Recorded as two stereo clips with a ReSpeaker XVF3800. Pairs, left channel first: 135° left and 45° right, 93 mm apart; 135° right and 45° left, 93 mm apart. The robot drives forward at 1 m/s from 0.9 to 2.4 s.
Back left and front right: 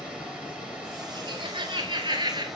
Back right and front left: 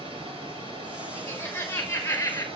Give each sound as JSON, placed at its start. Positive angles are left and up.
{"t": 0.0, "sound": "running water", "azimuth_deg": 35, "distance_m": 6.5}
{"t": 1.1, "sound": "laughter", "azimuth_deg": -60, "distance_m": 5.0}